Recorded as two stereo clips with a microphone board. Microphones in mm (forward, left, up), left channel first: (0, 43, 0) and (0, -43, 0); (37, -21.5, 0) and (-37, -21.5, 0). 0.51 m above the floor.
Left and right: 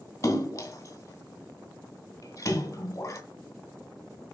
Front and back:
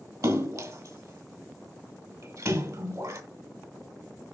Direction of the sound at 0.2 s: 140° left.